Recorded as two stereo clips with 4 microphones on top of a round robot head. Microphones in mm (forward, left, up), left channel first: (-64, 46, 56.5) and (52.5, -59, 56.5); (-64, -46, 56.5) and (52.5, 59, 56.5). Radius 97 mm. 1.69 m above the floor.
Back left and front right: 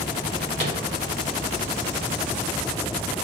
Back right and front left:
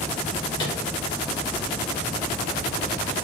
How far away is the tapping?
About 1.8 m.